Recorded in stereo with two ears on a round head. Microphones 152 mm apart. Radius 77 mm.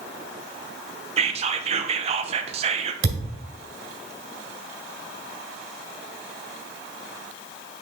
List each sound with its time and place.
1.2 s whispering: 35° right (ahead or behind), 0.7 m
3.0 s a thud: 75° right (ahead or behind), 1.9 m